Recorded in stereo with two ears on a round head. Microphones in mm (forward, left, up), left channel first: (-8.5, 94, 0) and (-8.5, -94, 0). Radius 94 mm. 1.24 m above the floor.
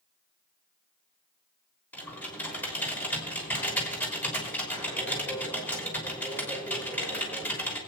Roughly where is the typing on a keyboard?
Centre.